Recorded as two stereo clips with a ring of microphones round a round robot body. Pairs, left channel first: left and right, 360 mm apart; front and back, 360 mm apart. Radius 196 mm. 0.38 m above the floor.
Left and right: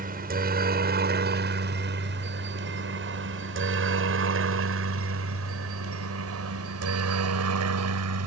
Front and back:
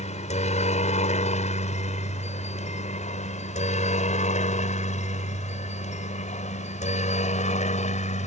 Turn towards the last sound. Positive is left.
turn(degrees=-65)